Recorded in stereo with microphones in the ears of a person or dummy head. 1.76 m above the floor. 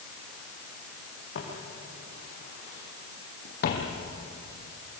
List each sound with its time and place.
1.4 s footsteps: 70° left (ahead or behind), 5.5 m; by 4.0 s 55° left (ahead or behind), 3 m